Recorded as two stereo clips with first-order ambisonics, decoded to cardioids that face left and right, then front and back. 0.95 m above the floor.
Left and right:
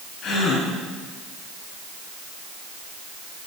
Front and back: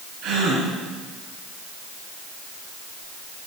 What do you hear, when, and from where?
0.2 s a gasp: 145° left, 2.5 m